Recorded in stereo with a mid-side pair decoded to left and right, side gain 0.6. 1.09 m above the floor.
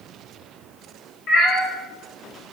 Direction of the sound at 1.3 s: 50° left.